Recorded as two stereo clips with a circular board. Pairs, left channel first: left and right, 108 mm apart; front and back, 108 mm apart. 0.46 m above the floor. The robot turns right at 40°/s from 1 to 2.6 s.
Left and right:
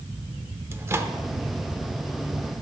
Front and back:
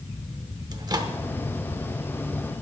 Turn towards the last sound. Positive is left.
turn(degrees=-85)